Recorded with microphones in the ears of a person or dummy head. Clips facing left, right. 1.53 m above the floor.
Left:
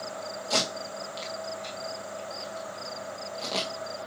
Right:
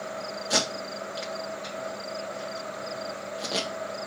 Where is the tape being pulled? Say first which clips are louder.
Right 1 dB; 15° right (ahead or behind), 1.7 m.